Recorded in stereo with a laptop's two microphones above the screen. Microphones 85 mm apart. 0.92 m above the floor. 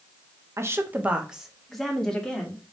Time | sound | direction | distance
0.6 | a woman speaking | 35° right (ahead or behind) | 0.6 m